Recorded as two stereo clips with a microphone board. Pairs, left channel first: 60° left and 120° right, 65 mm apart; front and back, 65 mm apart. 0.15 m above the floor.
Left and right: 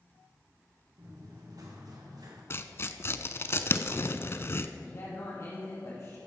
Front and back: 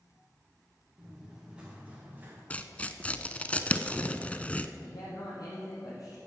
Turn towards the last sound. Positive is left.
turn(degrees=10)